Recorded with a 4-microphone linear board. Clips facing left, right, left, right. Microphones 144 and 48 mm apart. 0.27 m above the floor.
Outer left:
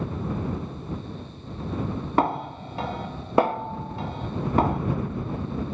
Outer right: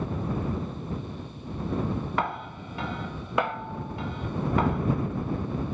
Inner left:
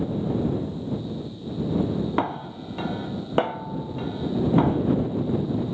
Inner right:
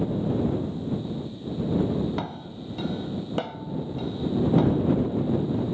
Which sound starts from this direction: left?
A snare drum, at 2.2 s.